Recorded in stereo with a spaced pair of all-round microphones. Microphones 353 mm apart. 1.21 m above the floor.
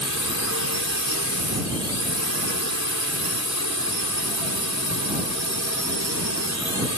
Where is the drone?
45° left (ahead or behind).